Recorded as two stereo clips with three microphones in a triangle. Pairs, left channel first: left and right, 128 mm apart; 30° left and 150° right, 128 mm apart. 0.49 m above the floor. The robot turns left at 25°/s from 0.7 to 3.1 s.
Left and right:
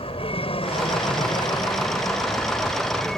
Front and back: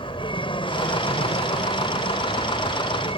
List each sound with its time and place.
0.0 s an aircraft: 65° left; by 3.2 s 5° left